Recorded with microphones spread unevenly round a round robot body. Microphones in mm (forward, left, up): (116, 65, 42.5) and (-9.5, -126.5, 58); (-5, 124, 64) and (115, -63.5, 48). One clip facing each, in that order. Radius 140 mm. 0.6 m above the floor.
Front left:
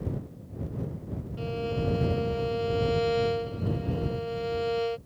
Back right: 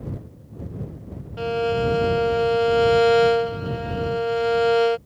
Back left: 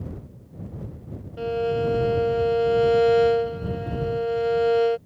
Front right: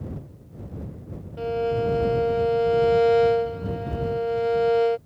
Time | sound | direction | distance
1.4 | a violin | 150° right | ?